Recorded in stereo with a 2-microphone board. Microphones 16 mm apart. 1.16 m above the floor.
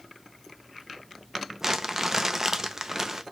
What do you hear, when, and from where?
1.6 s crumpling: 30° right (ahead or behind), 0.5 m